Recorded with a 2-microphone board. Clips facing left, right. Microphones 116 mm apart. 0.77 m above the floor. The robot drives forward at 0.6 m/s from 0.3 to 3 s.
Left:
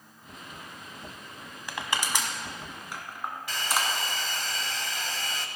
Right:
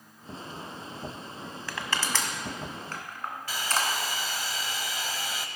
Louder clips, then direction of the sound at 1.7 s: Left 1 dB; 20° left (ahead or behind).